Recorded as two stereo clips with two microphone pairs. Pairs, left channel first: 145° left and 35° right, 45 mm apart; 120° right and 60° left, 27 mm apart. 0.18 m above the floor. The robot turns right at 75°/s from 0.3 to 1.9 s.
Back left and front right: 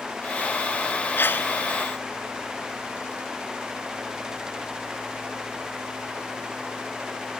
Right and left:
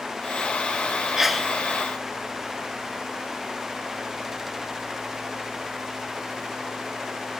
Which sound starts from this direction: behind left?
A sneeze, at 1.2 s.